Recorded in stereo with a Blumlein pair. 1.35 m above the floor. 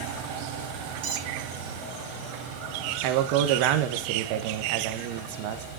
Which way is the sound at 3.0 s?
45° right.